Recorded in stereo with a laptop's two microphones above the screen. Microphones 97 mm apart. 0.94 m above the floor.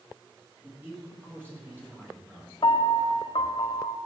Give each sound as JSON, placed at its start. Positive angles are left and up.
{"t": 0.6, "sound": "a man speaking", "side_deg": -25, "distance_m": 1.7}
{"t": 2.6, "sound": "a piano", "side_deg": 70, "distance_m": 0.8}